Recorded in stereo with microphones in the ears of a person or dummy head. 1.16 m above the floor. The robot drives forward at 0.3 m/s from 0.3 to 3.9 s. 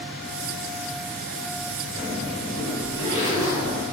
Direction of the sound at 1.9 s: 35° right (ahead or behind).